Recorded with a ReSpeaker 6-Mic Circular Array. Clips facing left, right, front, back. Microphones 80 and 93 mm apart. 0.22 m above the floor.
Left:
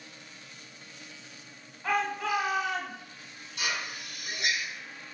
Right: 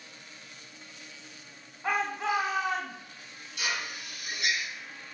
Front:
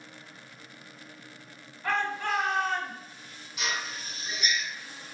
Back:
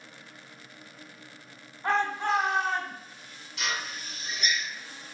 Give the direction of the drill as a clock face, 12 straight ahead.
10 o'clock.